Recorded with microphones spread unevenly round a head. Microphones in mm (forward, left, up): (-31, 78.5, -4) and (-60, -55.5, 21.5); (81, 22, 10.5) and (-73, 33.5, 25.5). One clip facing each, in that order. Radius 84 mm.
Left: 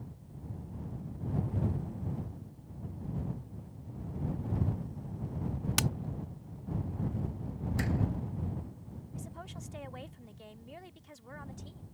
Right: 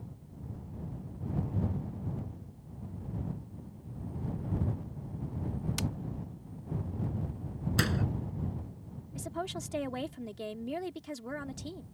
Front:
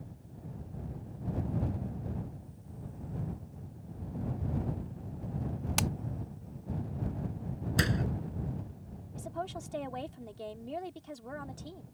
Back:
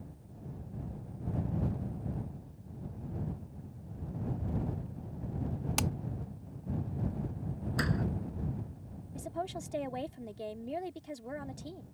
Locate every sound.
5.8 s hammering: 85° left
7.8 s a door slam: 70° right
9.2 s a woman speaking: 105° right